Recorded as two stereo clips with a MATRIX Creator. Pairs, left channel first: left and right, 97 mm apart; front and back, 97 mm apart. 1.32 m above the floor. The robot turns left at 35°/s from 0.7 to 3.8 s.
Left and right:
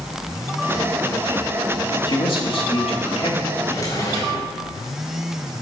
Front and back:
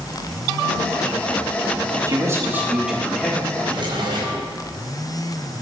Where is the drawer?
150° left, 4 m; by 4.5 s 140° left, 4 m.